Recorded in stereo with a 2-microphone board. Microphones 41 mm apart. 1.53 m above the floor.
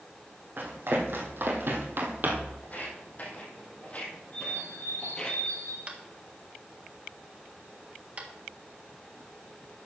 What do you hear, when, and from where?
0.6 s running footsteps: 55° right (ahead or behind), 3.5 m; by 2.5 s 45° right (ahead or behind), 2.5 m
2.6 s footsteps: 40° left (ahead or behind), 3.5 m; by 5.3 s 20° left (ahead or behind), 2.5 m
4.3 s a bird: 60° left (ahead or behind), 6.5 m
5.9 s tapping: 35° right (ahead or behind), 1.7 m